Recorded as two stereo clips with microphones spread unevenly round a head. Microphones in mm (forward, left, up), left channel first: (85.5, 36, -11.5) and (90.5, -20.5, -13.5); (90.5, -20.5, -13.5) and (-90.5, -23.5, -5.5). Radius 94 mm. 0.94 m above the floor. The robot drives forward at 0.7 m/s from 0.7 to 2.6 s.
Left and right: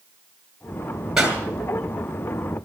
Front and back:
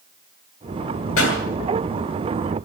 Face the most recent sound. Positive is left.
turn(degrees=-5)